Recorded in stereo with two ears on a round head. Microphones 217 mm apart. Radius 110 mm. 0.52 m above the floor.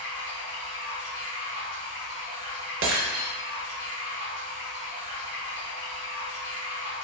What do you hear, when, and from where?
0.0 s running water: 55° left (ahead or behind), 1.7 m
2.8 s breaking glass: 50° right (ahead or behind), 0.7 m